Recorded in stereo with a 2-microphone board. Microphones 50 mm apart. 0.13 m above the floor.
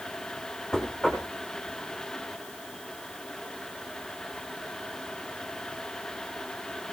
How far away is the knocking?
About 5.5 m.